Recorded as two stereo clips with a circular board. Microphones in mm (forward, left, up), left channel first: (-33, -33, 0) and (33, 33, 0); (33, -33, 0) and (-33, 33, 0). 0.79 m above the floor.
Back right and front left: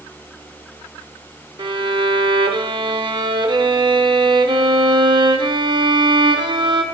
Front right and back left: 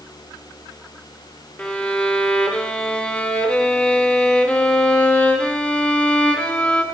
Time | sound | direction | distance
1.6 | a violin | 30° left | 0.6 m